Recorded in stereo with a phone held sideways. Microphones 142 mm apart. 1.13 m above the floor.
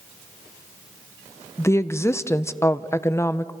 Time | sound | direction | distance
1.6 | a woman speaking | 20° left (ahead or behind) | 0.5 m